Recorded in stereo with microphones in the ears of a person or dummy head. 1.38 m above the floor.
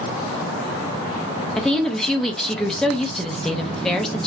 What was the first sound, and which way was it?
A woman speaking, 5° left (ahead or behind).